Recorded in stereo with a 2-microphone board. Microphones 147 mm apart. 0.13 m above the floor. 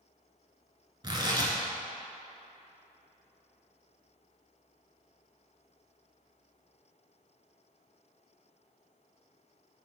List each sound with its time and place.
1.0 s tearing paper: 30° right (ahead or behind), 1.1 m